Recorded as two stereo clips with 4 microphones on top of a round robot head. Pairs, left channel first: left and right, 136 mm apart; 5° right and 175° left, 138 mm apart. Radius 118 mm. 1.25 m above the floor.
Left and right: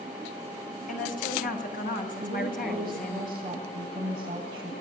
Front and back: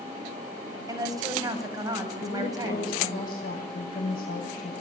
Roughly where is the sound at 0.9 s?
Left.